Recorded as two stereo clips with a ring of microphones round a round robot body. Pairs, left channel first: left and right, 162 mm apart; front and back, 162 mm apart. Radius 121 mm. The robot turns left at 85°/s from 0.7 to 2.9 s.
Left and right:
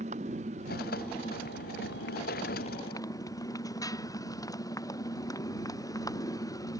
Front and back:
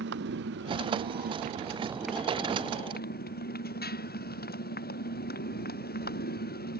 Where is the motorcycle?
150° right; by 6.8 s 20° left.